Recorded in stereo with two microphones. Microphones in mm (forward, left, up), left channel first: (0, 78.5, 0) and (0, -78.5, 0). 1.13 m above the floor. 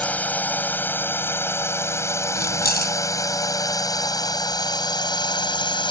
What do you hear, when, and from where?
0.0 s a drone: 10° left (ahead or behind); by 5.9 s 30° left (ahead or behind)
2.4 s keys jangling: 90° left